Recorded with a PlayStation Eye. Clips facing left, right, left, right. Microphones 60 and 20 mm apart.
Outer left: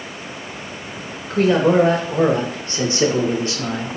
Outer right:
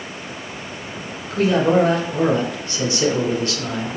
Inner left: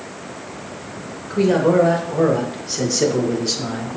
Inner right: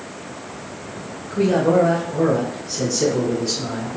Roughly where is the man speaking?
Left.